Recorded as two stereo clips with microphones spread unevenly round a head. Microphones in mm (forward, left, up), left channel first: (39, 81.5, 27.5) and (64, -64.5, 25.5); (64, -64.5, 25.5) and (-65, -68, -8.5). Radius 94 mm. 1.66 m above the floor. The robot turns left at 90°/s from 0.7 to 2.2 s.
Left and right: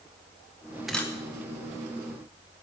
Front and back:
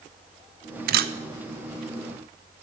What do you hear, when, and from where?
0.9 s a camera shutter: 170° right, 0.6 m; by 1.1 s 170° left, 0.6 m